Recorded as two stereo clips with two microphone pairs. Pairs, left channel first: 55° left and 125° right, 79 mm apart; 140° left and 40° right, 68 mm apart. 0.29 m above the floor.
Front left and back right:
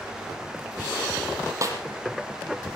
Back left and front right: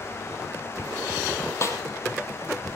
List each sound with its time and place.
1.6 s a snare drum: 170° right, 3.5 m